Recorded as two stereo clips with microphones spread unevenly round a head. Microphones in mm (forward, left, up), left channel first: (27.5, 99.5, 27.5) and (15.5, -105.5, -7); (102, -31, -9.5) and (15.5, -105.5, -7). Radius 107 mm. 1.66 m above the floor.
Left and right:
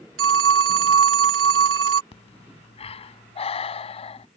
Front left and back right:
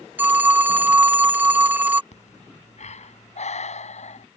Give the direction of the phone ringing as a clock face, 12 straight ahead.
2 o'clock.